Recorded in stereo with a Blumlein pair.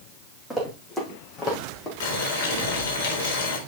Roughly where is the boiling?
Ahead left.